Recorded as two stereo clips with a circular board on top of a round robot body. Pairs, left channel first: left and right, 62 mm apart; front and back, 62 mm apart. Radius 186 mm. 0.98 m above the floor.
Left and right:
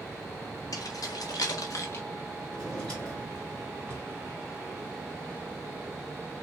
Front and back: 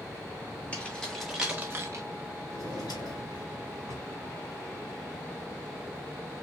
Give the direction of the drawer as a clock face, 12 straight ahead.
12 o'clock.